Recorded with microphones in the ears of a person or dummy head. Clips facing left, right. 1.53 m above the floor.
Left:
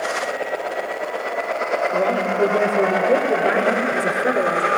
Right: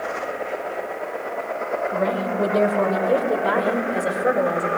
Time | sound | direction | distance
1.9 | a woman speaking | 45° left (ahead or behind) | 5.5 m